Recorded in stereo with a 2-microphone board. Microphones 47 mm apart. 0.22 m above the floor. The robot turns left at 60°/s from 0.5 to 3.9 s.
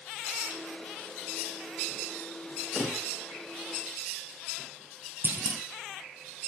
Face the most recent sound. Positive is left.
turn(degrees=-45)  # may be behind; listen again after turning